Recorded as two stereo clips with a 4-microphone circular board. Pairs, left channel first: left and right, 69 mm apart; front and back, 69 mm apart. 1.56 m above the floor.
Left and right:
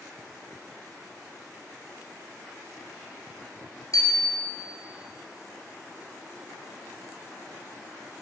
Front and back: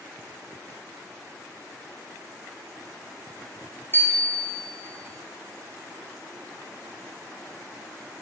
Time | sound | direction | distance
3.9 | a bicycle bell | 60° left | 4.5 m